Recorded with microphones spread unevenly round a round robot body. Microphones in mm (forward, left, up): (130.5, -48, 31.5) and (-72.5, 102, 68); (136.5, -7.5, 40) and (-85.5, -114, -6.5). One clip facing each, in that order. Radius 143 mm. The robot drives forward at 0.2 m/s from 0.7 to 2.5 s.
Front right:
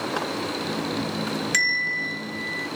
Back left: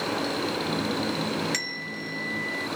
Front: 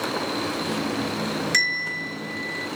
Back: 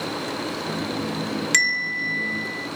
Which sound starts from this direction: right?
A bell, at 1.5 s.